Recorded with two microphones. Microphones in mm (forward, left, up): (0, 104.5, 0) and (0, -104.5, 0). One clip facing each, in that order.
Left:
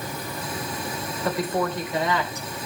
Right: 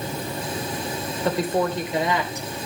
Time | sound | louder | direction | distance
1.2 | a woman speaking | right 3 dB | 30° right (ahead or behind) | 3.5 m